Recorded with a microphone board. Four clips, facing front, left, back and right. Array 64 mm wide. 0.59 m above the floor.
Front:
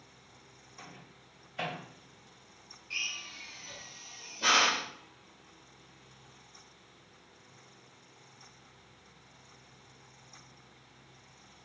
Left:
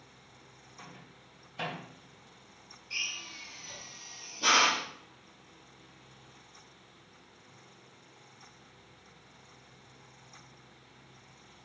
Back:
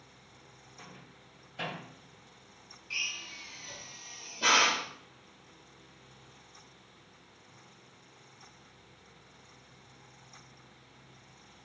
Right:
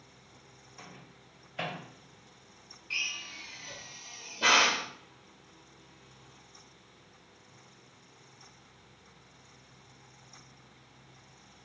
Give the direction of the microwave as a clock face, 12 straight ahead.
2 o'clock.